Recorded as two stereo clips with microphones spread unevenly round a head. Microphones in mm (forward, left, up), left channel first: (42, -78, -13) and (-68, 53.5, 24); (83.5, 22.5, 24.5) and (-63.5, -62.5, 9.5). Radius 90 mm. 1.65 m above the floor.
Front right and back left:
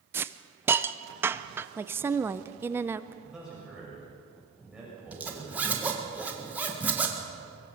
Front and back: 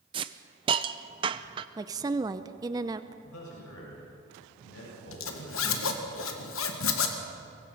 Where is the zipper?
50° left, 1.8 m.